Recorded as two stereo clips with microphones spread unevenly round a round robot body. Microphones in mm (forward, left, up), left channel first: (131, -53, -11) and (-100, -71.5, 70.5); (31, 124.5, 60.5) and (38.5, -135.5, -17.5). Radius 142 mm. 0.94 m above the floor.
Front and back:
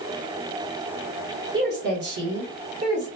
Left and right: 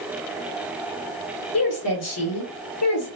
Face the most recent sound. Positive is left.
turn(degrees=130)